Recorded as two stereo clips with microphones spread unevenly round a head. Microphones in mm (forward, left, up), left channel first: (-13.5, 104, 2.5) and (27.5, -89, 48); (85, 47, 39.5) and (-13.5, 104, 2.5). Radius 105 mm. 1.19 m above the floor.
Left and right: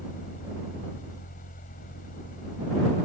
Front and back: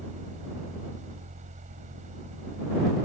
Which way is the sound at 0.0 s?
150° left.